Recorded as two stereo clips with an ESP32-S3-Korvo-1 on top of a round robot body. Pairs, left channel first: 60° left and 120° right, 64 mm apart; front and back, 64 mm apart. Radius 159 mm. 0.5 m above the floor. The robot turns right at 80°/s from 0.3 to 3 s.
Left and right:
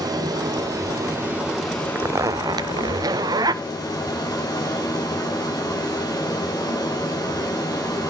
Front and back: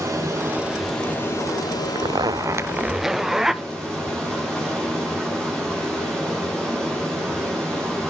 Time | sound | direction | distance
0.0 | running water | 130° right | 7.5 m
1.9 | a zipper | straight behind | 0.6 m